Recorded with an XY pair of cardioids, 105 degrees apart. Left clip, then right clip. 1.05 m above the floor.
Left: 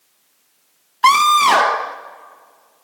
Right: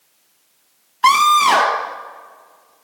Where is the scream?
10° left, 0.8 m.